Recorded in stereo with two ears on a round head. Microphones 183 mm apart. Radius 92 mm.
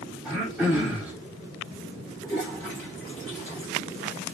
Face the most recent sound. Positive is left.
turn(degrees=5)  # may be behind; listen again after turning